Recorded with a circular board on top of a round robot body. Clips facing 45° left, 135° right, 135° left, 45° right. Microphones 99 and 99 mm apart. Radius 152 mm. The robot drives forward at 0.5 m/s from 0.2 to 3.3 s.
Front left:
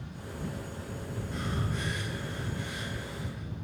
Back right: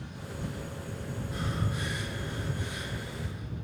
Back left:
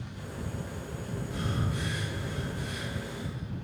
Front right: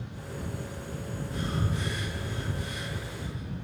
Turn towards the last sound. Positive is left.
turn(degrees=155)